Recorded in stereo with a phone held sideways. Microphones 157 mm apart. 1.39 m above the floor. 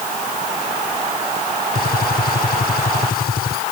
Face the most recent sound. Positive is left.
turn(degrees=85)